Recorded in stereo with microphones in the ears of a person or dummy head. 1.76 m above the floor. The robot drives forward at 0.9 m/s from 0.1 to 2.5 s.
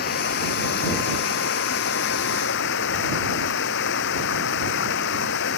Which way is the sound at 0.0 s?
50° left (ahead or behind).